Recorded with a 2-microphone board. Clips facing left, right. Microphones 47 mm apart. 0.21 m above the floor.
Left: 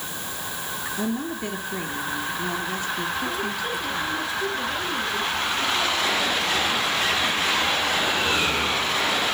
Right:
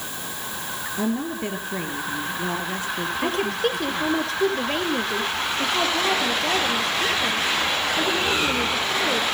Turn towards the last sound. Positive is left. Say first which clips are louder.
# right 4 dB
turn(degrees=-65)  # may be behind; listen again after turning